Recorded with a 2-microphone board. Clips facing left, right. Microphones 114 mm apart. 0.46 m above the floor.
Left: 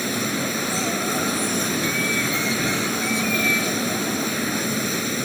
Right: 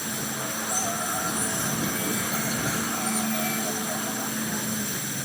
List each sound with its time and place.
0.0 s running water: 85° left